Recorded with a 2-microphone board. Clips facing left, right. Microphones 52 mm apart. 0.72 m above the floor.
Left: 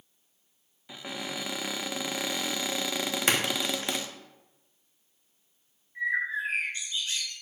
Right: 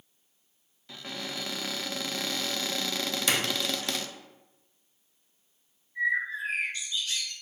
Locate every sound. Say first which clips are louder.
0.9 s a cupboard door: left 1 dB; 15° left (ahead or behind), 0.6 m
3.3 s a splash: left 2 dB; 35° left (ahead or behind), 1.2 m
6.0 s a bird: right 1 dB; 30° left (ahead or behind), 3 m